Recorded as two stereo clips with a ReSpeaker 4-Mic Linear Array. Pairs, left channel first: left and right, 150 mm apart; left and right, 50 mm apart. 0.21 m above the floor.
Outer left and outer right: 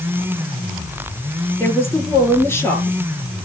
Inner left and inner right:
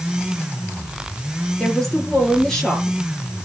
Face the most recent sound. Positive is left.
turn(degrees=15)  # may be behind; listen again after turning